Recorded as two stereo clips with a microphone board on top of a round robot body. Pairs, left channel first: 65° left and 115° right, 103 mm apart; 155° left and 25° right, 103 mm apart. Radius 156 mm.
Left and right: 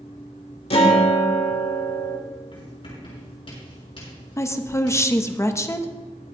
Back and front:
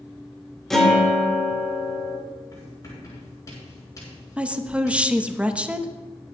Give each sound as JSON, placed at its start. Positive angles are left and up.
{"t": 0.7, "sound": "a guitar", "azimuth_deg": 70, "distance_m": 2.5}
{"t": 2.5, "sound": "writing", "azimuth_deg": 100, "distance_m": 5.5}
{"t": 4.4, "sound": "a woman speaking", "azimuth_deg": 45, "distance_m": 1.1}